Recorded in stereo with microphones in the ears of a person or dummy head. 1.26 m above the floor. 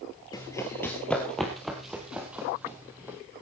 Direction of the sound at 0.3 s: 20° left (ahead or behind).